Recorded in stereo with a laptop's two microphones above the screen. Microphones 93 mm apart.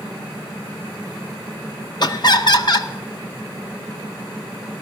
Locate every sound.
2.0 s laughter: 50° left (ahead or behind), 0.6 m